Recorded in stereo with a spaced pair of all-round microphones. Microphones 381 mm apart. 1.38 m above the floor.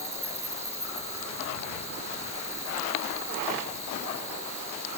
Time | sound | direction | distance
0.0 | an insect | 85° right | ?